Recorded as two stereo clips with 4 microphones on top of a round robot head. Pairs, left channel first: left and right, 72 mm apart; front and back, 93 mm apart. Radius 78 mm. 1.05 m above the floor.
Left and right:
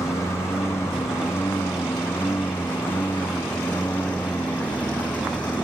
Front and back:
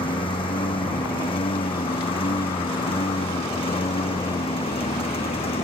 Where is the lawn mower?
30° left; by 5.7 s 15° left.